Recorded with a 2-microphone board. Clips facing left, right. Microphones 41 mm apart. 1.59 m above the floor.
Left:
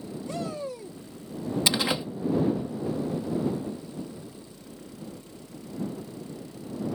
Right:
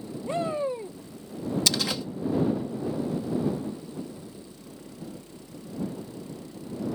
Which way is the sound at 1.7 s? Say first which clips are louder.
Left 4 dB; 25° left (ahead or behind).